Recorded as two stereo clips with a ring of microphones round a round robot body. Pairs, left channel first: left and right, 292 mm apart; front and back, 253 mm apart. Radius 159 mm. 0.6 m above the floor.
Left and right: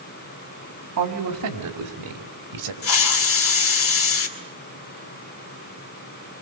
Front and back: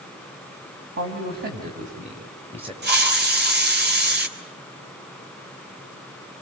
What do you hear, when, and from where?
1.0 s a man speaking: 125° right, 4 m; by 2.7 s 105° right, 4 m
2.8 s a hiss: 130° left, 3 m